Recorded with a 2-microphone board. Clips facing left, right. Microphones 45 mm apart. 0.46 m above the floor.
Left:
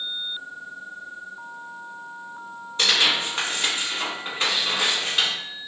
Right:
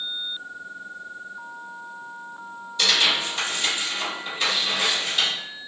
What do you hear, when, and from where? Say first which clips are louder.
2.8 s tearing paper: even; 35° left (ahead or behind), 1.3 m